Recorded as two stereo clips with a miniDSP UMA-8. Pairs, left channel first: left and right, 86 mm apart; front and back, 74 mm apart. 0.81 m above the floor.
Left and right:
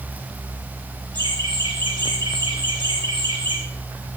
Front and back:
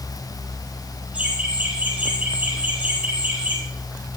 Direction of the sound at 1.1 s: 115° right.